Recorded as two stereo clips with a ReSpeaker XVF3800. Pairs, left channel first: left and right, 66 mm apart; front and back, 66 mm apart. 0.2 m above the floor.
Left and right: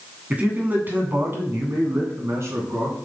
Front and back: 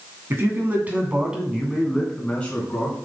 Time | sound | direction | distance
0.3 | a man speaking | 150° right | 2 m